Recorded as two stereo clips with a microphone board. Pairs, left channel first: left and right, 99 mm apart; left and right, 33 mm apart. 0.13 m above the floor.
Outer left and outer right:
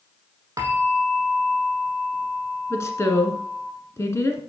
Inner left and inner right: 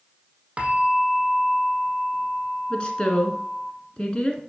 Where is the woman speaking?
30° left (ahead or behind), 1.2 m.